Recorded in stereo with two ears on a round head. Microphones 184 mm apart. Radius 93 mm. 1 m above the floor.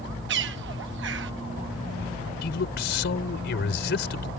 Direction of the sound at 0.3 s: 60° right (ahead or behind).